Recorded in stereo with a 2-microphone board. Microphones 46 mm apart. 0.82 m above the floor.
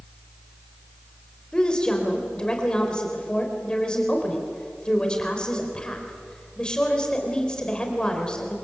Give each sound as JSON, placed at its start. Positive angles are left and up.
{"t": 1.5, "sound": "a woman speaking", "side_deg": 20, "distance_m": 4.0}